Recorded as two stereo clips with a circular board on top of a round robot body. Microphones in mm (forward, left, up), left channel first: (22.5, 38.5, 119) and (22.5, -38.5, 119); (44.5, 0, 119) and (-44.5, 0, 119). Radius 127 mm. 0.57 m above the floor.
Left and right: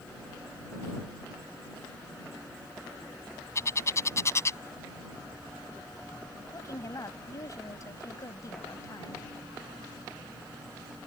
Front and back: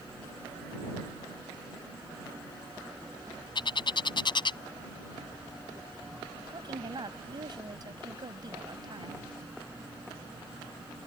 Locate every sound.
3.5 s a bird: 35° left
6.5 s a woman speaking: 140° left